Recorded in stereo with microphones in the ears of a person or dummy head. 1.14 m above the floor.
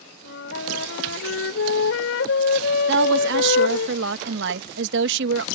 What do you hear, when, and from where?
0.2 s a flute: 75° left (ahead or behind)
2.9 s a woman speaking: 70° right (ahead or behind)